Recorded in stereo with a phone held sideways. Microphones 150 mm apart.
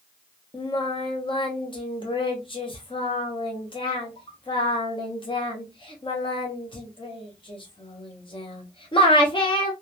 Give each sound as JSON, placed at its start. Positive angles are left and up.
{"t": 0.5, "sound": "singing", "side_deg": 30, "distance_m": 0.6}